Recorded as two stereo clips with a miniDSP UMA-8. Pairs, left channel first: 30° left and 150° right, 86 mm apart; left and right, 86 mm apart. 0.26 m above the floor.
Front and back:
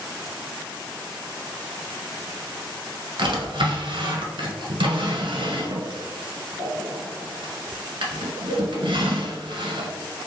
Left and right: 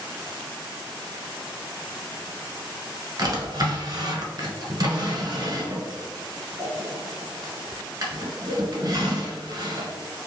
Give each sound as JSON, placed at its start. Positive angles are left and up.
{"t": 3.2, "sound": "a drawer", "azimuth_deg": -135, "distance_m": 1.1}